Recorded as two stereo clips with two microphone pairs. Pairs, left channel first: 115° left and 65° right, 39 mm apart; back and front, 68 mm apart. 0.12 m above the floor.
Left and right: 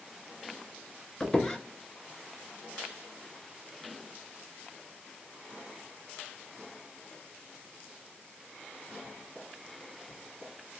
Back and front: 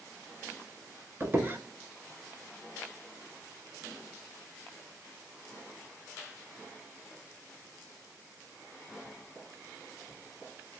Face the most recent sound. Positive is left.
turn(degrees=40)